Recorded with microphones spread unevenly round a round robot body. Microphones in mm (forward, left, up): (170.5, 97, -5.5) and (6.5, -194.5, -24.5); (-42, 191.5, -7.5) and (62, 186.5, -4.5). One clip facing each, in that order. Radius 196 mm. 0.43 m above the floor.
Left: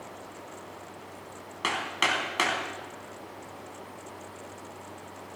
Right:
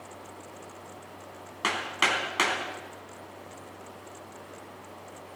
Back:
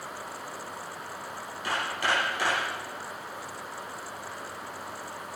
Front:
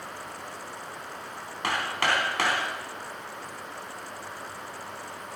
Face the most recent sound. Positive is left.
turn(degrees=-30)